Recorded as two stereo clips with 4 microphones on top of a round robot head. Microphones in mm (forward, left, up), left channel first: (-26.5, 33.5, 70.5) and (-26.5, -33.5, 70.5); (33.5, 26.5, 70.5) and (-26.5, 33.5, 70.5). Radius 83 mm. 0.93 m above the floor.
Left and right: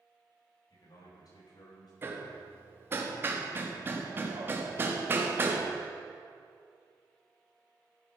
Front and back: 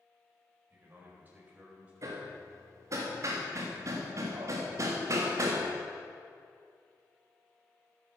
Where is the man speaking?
115° left, 4.5 m; by 1.9 s 105° left, 4.5 m.